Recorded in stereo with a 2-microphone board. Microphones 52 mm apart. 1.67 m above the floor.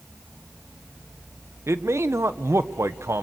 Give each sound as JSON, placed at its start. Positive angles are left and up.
{"t": 1.7, "sound": "a man speaking", "side_deg": -60, "distance_m": 1.2}